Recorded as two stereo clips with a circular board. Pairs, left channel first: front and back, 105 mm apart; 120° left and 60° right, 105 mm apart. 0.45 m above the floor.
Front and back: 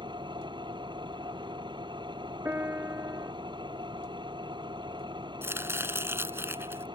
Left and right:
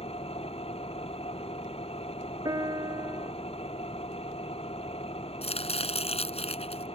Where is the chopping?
110° left.